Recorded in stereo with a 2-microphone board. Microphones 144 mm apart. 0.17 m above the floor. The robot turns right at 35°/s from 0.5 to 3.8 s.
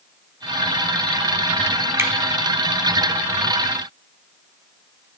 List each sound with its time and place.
2.0 s a finger snap: 20° right (ahead or behind), 0.9 m; by 2.1 s 15° right (ahead or behind), 0.9 m